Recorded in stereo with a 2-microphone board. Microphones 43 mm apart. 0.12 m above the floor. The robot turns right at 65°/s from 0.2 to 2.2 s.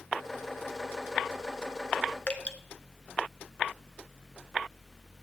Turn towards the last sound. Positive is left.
turn(degrees=30)  # may be behind; listen again after turning